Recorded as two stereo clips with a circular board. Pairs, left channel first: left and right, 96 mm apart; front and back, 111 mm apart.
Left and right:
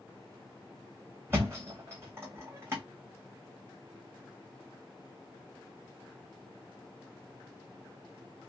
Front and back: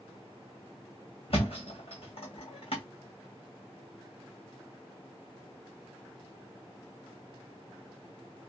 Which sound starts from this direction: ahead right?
A thud, at 1.3 s.